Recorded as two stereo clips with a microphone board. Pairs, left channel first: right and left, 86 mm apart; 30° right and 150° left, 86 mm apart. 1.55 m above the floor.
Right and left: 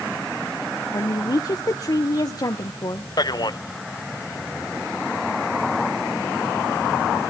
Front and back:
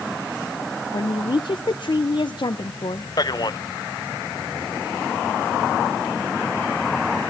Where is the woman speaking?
50° right, 1.0 m.